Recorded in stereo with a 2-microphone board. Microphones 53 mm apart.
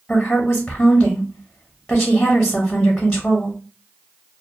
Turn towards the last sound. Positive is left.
turn(degrees=30)  # may be behind; listen again after turning